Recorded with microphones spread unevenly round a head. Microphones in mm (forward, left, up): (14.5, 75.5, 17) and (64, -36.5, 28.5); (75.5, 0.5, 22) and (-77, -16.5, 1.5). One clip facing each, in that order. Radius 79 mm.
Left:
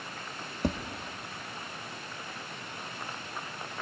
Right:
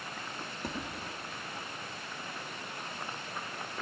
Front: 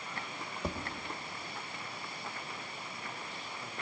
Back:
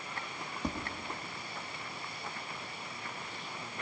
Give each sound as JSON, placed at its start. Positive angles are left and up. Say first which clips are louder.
{"t": 0.6, "sound": "tapping", "louder": "left 8 dB, back 1 dB", "azimuth_deg": 90, "distance_m": 1.1}